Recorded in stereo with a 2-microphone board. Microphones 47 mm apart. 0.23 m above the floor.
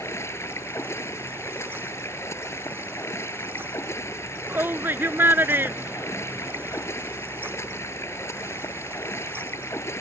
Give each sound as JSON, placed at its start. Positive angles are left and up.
{"t": 0.0, "sound": "running water", "side_deg": 75}
{"t": 4.5, "sound": "a shout", "side_deg": -50}